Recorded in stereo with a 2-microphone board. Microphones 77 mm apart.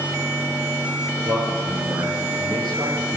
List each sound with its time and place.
1.2 s a man speaking: 75° right (ahead or behind), 6.5 m